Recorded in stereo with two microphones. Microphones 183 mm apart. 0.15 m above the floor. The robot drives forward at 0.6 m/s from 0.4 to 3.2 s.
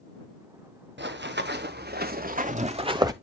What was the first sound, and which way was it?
Running footsteps, 75° right (ahead or behind).